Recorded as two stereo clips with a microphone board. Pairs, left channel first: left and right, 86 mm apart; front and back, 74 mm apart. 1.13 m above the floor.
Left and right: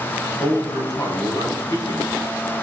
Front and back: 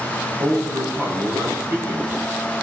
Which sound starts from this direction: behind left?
A man speaking, at 0.4 s.